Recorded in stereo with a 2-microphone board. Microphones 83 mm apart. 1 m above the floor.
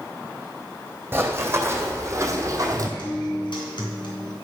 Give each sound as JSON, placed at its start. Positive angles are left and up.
{"t": 1.1, "sound": "running footsteps", "side_deg": -25, "distance_m": 2.0}
{"t": 3.0, "sound": "a guitar", "side_deg": 75, "distance_m": 3.5}